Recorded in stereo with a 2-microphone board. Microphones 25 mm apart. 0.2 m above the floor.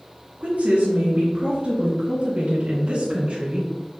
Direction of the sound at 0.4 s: 55° right (ahead or behind).